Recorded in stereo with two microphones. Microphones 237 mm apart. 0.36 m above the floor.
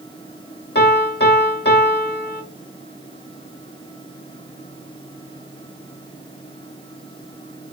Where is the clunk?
No clunk in this recording.